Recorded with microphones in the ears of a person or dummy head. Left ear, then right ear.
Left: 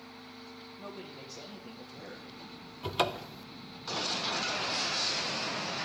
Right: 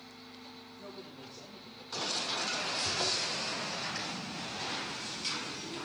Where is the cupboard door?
65° left (ahead or behind), 0.5 m.